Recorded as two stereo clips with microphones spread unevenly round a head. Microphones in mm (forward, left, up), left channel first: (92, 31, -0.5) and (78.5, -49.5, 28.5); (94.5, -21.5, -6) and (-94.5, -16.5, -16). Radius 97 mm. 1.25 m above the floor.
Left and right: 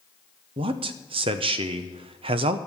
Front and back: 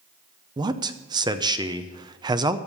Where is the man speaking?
120° right, 0.8 m.